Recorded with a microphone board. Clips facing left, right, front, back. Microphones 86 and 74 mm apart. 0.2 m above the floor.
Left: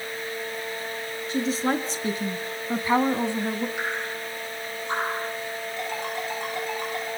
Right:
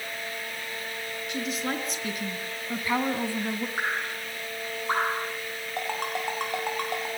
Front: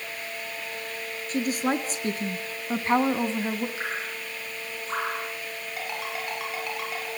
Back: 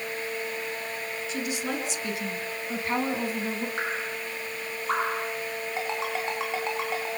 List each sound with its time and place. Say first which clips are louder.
1.3 s a woman speaking: left 7 dB, front 7 dB; 35° left, 3.5 m; by 3.7 s 40° left, 1.7 m
3.8 s dripping: left 1 dB, back 2 dB; 145° right, 8 m
5.8 s a ringtone: right 2 dB, back 3 dB; 120° right, 8.5 m